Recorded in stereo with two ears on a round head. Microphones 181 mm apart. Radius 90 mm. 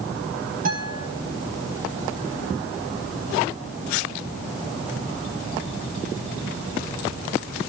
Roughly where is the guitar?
Right.